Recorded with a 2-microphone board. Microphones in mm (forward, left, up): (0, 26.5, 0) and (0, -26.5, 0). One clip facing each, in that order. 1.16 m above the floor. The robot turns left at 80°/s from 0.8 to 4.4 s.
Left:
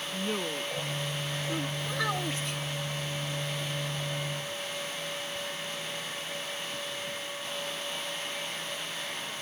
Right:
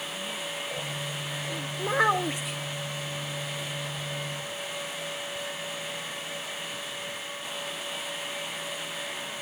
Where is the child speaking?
120° right; by 2.6 s 175° left.